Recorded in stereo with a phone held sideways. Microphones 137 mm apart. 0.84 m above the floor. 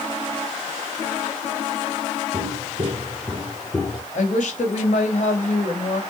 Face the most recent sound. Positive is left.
turn(degrees=60)  # may be behind; listen again after turning